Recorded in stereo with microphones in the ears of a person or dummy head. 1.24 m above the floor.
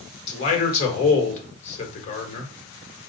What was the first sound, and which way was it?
A man speaking, 40° left (ahead or behind).